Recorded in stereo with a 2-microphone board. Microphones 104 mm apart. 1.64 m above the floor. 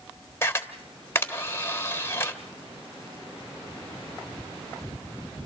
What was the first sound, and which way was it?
A camera shutter, 25° left (ahead or behind).